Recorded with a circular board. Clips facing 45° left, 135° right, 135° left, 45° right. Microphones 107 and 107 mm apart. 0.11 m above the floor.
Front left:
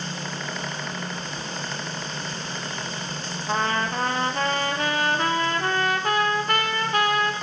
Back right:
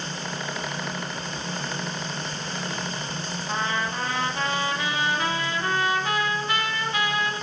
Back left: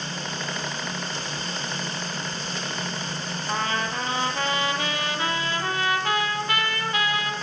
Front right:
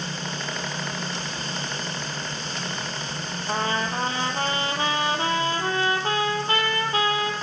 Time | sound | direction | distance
3.5 | a trumpet | 10° left | 1.1 m